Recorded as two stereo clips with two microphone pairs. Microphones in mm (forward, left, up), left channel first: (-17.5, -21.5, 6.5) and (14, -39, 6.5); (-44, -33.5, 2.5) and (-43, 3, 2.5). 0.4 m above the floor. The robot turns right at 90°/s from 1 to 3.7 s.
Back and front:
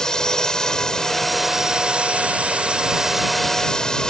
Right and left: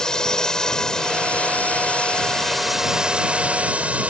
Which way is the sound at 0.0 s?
150° right.